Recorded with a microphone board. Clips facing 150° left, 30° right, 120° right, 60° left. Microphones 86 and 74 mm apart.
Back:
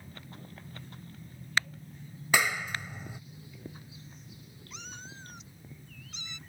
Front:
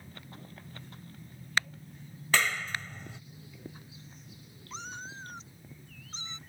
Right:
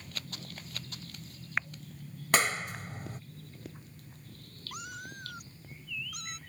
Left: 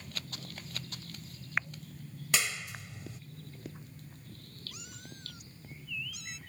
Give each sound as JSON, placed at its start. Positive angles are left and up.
{"t": 2.3, "sound": "a clap", "azimuth_deg": -135}
{"t": 4.7, "sound": "a cat meowing", "azimuth_deg": -85}